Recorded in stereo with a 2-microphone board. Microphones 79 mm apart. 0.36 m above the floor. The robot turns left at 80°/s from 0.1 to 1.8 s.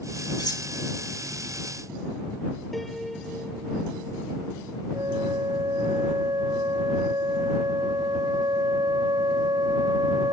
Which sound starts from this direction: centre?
A piano, at 2.7 s.